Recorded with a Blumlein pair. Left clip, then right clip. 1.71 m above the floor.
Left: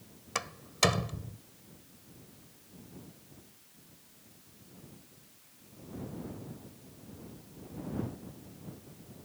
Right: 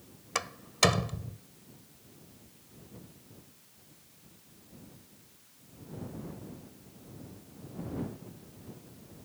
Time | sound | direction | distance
0.3 | a door slam | 5° right | ?